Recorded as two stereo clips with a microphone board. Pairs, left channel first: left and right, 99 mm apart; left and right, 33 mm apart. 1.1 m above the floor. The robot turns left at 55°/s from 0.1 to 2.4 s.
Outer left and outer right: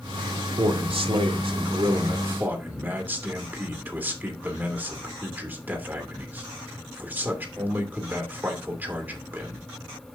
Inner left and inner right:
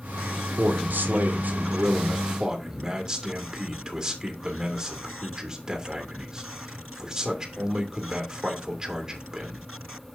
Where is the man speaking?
60° right, 2.5 m; by 9.7 s 160° right, 2.5 m.